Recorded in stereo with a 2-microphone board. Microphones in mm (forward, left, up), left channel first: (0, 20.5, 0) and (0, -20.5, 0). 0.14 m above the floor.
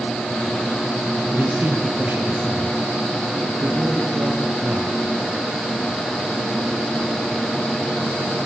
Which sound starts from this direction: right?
A man speaking, at 1.3 s.